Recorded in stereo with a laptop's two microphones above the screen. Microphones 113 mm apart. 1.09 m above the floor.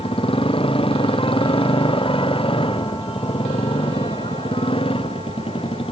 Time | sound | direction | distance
0.0 | a motorcycle | 55° left (ahead or behind) | ?